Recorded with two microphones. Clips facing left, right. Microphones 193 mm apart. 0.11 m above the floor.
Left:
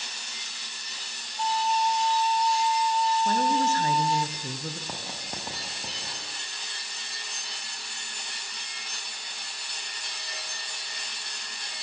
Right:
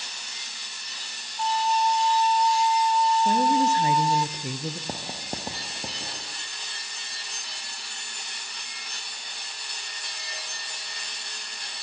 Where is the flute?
35° left (ahead or behind), 0.7 m.